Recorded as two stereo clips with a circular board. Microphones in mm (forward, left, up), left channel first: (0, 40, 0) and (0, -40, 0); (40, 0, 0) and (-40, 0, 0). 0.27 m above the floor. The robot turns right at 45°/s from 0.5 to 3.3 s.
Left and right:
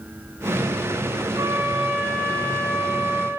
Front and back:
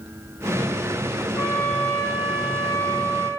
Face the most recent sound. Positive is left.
turn(degrees=55)